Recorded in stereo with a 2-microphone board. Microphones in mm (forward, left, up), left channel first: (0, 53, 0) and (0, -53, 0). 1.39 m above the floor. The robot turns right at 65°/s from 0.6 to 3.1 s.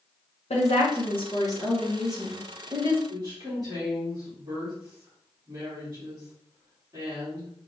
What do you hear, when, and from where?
0.5 s a woman speaking: 85° left, 1.1 m; by 3.0 s 120° right, 1.1 m
3.1 s a woman speaking: 35° right (ahead or behind), 1.8 m; by 7.5 s 40° right (ahead or behind), 1.8 m